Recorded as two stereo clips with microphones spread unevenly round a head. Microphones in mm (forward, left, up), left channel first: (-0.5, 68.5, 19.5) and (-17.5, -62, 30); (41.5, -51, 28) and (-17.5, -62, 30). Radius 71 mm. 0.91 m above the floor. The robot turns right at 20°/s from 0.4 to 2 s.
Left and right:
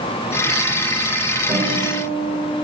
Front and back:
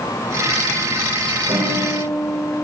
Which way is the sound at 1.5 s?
165° right.